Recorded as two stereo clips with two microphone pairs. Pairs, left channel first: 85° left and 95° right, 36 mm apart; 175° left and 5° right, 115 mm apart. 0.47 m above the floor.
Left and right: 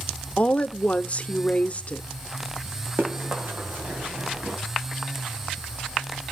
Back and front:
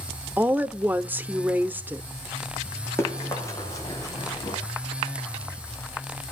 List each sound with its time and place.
0.4 s a woman speaking: 60° left, 0.9 m
3.0 s running footsteps: 120° right, 7 m; by 4.6 s 130° right, 7.5 m